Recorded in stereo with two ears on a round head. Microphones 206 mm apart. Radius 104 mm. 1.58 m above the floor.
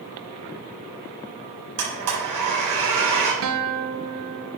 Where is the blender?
80° right, 4.5 m.